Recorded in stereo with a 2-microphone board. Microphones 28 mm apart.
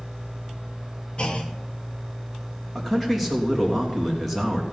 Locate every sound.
1.2 s a clunk: 40° left (ahead or behind), 1.2 m
2.8 s a man speaking: centre (ahead or behind), 3 m